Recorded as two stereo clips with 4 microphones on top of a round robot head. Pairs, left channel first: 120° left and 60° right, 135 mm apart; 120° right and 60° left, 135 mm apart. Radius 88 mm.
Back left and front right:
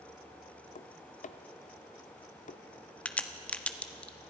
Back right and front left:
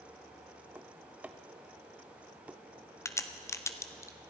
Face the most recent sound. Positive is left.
turn(degrees=-165)